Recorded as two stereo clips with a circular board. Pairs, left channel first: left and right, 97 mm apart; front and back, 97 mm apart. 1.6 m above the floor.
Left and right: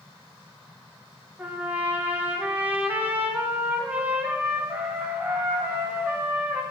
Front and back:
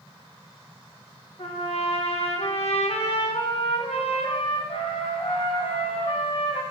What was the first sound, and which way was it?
A trumpet, 15° right.